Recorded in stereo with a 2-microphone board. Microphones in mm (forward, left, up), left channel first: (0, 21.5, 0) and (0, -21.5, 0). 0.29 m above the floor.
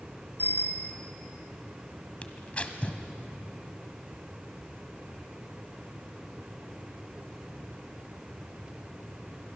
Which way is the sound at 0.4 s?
60° left (ahead or behind).